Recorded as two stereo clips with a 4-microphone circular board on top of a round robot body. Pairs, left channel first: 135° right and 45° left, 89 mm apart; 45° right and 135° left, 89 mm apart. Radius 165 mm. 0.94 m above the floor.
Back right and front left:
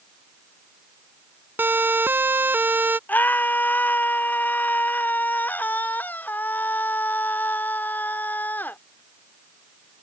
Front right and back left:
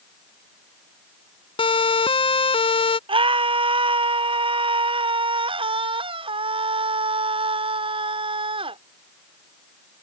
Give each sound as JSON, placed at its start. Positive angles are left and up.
{"t": 1.6, "sound": "a siren", "azimuth_deg": -20}
{"t": 3.1, "sound": "a scream", "azimuth_deg": 155}